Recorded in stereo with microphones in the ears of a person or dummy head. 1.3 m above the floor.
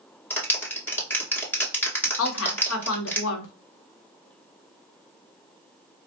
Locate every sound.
0.3 s a clap: 10° left (ahead or behind), 1.5 m
2.2 s a woman speaking: 75° left (ahead or behind), 1.0 m